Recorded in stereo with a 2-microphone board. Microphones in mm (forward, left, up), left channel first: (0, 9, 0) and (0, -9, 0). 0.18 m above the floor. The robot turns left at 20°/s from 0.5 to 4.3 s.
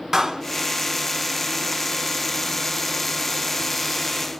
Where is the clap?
25° right (ahead or behind), 1.2 m.